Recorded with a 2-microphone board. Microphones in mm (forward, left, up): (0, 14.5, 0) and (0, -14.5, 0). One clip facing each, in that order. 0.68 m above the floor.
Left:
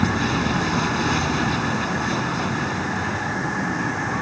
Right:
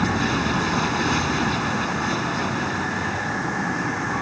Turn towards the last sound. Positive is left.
turn(degrees=-5)  # may be behind; listen again after turning